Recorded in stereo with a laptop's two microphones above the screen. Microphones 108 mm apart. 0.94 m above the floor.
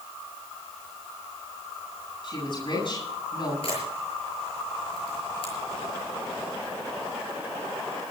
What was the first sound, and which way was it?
A woman speaking, 50° left (ahead or behind).